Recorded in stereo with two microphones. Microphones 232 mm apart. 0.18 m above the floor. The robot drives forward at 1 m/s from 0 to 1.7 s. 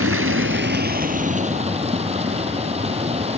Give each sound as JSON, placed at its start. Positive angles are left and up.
{"t": 0.0, "sound": "running water", "side_deg": -75, "distance_m": 0.9}